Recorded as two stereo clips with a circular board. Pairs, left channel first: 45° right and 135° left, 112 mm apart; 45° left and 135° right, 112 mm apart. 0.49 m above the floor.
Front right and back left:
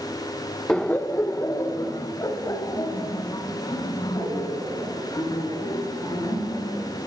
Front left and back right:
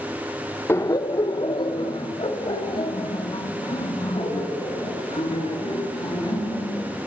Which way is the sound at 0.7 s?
30° left.